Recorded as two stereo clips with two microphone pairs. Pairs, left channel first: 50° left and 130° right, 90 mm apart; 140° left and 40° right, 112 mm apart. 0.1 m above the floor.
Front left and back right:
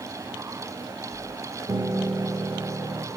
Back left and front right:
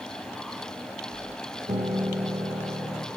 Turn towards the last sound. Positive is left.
turn(degrees=-80)